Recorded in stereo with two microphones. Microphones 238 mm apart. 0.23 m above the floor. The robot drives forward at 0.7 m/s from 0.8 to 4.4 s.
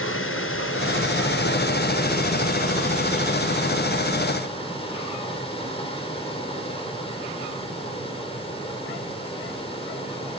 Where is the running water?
65° left (ahead or behind), 1.3 m; by 10.4 s 20° left (ahead or behind), 3 m.